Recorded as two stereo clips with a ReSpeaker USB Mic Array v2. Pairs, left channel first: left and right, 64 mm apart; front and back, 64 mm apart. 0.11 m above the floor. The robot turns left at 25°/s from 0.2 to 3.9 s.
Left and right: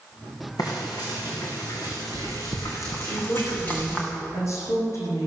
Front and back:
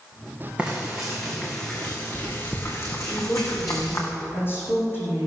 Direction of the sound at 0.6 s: 105° left.